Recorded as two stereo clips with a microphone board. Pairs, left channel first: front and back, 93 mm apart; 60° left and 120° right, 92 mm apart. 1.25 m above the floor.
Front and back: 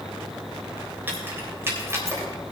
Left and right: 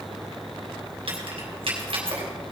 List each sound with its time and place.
1.1 s keys jangling: 110° right, 3.5 m; by 2.3 s 120° right, 3.5 m